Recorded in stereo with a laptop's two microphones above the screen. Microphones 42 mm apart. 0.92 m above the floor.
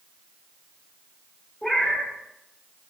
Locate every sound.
1.6 s a cat meowing: 15° left (ahead or behind), 0.5 m